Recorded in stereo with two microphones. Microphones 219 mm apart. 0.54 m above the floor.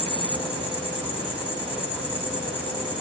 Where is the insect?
25° right (ahead or behind), 1.2 m.